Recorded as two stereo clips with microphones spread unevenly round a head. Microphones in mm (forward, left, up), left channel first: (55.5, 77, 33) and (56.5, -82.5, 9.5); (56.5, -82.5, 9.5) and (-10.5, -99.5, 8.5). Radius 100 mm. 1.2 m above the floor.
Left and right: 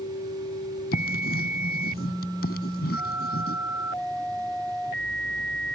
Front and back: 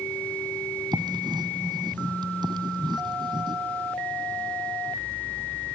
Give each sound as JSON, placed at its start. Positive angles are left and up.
{"t": 0.9, "sound": "writing", "azimuth_deg": 135}